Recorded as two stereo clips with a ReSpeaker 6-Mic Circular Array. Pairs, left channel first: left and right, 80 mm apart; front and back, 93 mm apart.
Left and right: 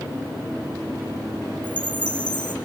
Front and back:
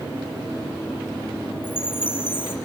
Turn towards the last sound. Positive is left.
turn(degrees=65)